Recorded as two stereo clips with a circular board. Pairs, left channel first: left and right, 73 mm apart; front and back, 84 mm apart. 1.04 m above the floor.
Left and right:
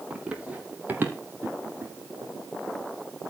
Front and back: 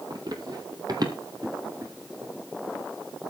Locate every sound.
0.1 s running footsteps: 160° right, 1.9 m; by 2.3 s 145° right, 3 m